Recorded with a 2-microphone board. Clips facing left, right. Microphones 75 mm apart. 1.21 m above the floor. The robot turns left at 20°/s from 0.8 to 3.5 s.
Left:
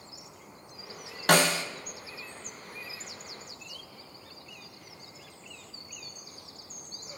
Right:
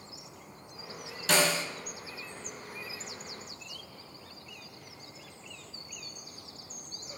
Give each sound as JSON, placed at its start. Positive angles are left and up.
{"t": 1.3, "sound": "a snare drum", "side_deg": 60, "distance_m": 0.9}